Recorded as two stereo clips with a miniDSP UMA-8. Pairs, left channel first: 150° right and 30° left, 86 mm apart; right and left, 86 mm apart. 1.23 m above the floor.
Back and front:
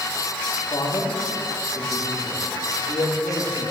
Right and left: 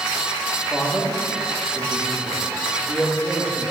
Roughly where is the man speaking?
Behind.